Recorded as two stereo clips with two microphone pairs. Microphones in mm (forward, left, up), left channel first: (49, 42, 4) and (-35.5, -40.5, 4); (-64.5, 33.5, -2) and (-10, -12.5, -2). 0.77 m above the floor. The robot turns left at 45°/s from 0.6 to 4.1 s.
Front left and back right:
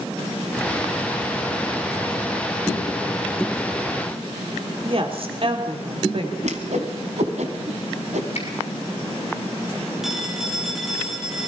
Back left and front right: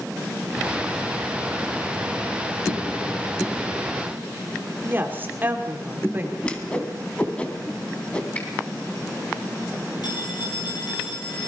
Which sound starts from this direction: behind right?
A whoosh, at 6.4 s.